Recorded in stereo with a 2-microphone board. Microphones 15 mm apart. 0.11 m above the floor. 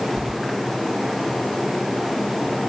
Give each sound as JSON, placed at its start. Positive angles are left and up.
{"t": 0.2, "sound": "keys jangling", "side_deg": -65, "distance_m": 2.5}